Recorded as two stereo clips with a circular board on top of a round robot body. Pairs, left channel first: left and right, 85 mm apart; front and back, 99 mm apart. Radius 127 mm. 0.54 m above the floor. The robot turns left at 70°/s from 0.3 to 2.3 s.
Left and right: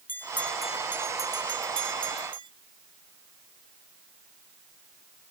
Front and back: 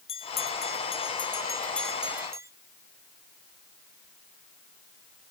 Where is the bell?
20° left; by 2.5 s 120° right.